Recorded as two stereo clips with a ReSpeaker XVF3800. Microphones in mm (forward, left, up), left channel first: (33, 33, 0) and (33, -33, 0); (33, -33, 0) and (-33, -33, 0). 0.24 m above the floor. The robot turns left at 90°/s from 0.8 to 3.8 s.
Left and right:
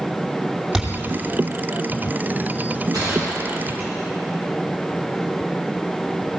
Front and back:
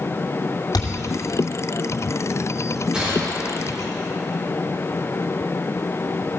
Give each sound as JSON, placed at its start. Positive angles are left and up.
{"t": 0.7, "sound": "a thud", "azimuth_deg": -5, "distance_m": 2.5}
{"t": 2.9, "sound": "a gunshot", "azimuth_deg": -100, "distance_m": 8.0}